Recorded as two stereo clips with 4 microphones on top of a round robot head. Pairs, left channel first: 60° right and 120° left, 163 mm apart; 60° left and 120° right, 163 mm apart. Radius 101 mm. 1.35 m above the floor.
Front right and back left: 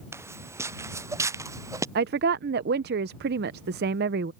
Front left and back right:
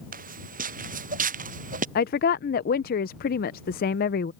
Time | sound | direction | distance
0.1 | footsteps | 160° right | ?
1.9 | a woman speaking | 95° left | ?